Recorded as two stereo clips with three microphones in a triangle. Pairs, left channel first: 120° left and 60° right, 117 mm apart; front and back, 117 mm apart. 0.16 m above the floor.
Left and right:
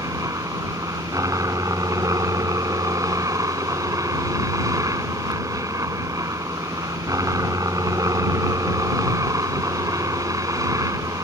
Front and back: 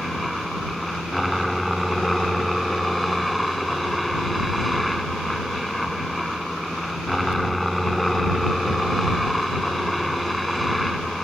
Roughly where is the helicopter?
Right.